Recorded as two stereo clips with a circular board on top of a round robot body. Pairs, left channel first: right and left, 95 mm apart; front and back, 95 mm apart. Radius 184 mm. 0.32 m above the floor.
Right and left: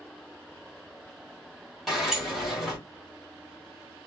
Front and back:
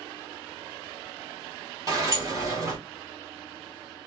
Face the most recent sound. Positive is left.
turn(degrees=180)